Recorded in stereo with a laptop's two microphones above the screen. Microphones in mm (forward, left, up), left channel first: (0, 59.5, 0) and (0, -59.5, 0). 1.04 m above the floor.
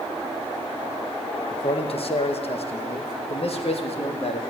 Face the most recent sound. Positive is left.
turn(degrees=55)  # may be behind; listen again after turning